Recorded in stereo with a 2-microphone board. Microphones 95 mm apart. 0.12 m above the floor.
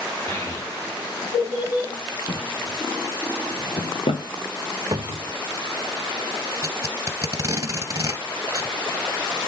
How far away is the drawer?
About 0.7 m.